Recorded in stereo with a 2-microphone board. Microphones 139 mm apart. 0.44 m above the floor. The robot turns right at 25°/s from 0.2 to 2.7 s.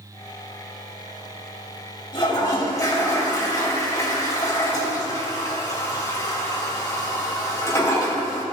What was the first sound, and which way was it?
A toilet flushing, 35° left (ahead or behind).